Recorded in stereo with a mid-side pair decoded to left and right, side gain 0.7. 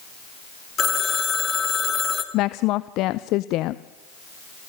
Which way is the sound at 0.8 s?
25° left.